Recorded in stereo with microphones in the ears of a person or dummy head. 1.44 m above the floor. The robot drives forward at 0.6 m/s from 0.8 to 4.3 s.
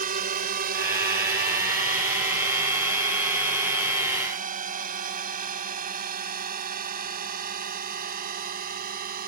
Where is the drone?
40° right (ahead or behind).